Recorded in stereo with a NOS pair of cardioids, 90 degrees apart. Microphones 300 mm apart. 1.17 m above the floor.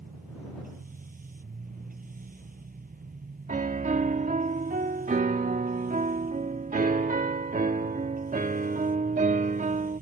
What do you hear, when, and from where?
0.0 s a machine running: 30° right
3.5 s a piano: 25° right